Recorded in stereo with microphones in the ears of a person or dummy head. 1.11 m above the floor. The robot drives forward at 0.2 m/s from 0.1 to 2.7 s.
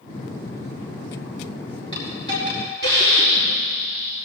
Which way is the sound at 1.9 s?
30° left (ahead or behind).